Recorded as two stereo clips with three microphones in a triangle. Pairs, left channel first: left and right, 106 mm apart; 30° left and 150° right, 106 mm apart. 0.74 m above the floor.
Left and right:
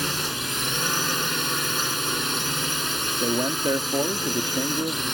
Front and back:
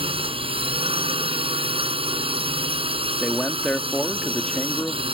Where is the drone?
Straight behind.